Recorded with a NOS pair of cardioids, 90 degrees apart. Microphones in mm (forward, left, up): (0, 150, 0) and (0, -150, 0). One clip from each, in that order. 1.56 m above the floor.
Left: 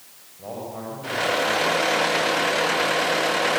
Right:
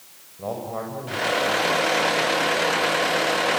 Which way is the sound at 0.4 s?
50° right.